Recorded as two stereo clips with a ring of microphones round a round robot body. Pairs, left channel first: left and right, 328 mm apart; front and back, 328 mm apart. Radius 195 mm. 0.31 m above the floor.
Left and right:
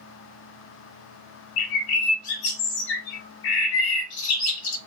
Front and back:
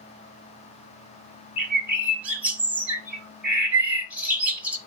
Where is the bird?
95° left, 0.8 m.